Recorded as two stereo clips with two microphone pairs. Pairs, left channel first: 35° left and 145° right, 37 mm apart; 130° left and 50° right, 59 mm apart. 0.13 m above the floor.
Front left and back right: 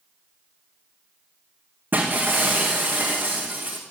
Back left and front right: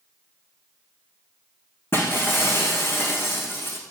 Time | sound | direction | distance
1.9 | breaking glass | straight behind | 3 m